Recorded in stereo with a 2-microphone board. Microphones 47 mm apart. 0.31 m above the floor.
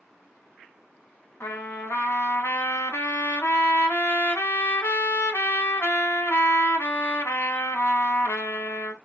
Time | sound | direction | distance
1.4 | a trumpet | 75° left (ahead or behind) | 0.9 m